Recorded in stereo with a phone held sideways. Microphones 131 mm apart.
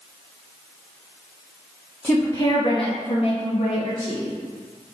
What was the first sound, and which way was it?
A woman speaking, 5° left (ahead or behind).